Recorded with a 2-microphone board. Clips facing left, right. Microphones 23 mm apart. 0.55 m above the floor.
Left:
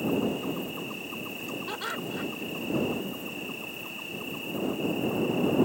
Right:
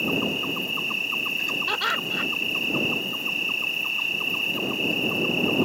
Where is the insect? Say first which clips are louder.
Right 4 dB; 60° right (ahead or behind).